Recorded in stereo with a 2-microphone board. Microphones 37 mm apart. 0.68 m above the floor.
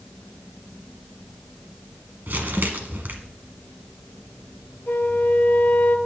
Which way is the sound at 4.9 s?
70° left (ahead or behind).